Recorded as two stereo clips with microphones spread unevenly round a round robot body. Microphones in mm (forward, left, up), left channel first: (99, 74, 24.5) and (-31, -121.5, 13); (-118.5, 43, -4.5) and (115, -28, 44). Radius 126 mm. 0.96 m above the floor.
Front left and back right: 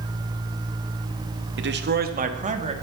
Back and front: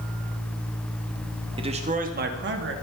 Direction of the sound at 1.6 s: 90° right.